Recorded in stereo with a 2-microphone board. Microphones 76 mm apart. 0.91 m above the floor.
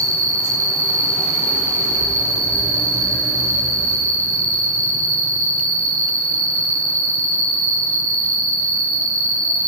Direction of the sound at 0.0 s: 15° left (ahead or behind).